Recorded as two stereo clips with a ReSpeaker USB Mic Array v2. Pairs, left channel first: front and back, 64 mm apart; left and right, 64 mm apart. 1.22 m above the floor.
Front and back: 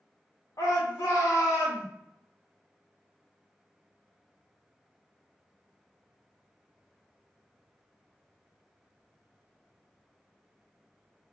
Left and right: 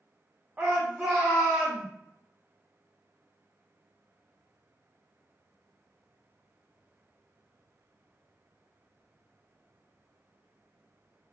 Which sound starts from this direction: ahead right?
A shout, at 0.6 s.